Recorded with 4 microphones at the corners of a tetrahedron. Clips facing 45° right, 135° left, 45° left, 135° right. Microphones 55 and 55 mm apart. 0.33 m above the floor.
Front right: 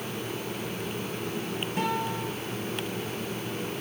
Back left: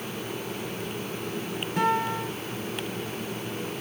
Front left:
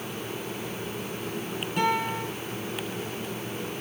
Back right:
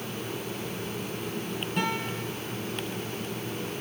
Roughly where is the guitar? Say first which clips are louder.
Back left 5 dB, front left 6 dB; behind left.